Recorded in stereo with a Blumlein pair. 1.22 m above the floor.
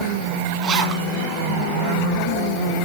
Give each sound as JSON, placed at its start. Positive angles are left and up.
{"t": 0.6, "sound": "a zipper", "azimuth_deg": -35, "distance_m": 1.6}